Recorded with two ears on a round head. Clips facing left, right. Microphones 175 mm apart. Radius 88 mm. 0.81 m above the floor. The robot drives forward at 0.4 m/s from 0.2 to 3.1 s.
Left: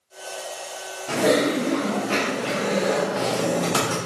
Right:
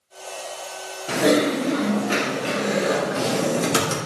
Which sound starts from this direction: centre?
Typing on a keyboard, at 1.1 s.